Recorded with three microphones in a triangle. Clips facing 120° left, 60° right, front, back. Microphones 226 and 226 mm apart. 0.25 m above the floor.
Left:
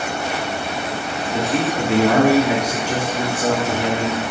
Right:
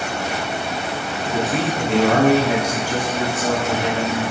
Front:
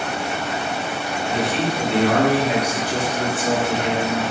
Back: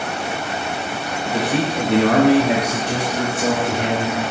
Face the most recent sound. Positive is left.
turn(degrees=170)